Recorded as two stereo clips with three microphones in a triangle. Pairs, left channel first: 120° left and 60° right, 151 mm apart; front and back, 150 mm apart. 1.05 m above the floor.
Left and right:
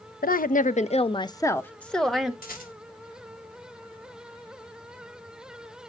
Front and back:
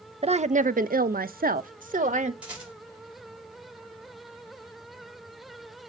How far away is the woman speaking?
About 0.7 m.